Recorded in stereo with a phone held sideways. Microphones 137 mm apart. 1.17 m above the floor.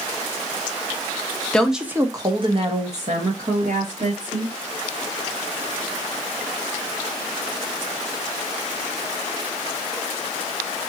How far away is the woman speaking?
About 0.6 m.